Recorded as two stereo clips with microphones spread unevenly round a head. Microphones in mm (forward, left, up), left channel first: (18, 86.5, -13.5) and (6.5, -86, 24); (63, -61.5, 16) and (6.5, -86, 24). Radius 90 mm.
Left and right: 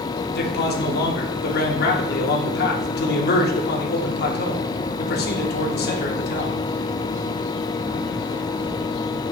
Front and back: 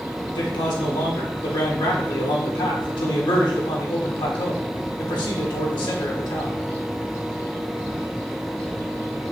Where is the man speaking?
50° left, 1.5 m.